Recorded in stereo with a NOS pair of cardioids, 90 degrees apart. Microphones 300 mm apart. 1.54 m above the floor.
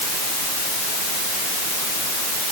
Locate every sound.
Only background noise.